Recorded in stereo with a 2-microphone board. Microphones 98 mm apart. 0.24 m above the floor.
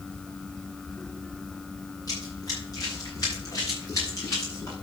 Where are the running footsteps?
40° left (ahead or behind), 7.5 m; by 4.7 s 35° left (ahead or behind), 8.5 m.